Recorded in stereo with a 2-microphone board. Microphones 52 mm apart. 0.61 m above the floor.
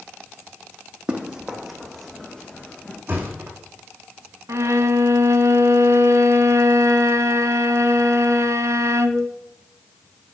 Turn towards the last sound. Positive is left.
turn(degrees=-65)  # may be behind; listen again after turning